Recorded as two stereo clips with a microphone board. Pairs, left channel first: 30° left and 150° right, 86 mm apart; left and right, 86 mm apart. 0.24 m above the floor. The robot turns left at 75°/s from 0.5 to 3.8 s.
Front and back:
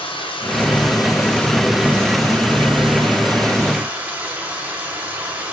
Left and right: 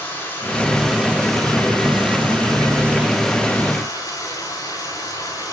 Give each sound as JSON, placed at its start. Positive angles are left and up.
{"t": 0.0, "sound": "running water", "azimuth_deg": 30, "distance_m": 8.5}